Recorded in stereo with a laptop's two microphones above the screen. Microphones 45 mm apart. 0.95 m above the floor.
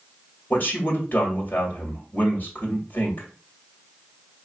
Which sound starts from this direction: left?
A man speaking, at 0.5 s.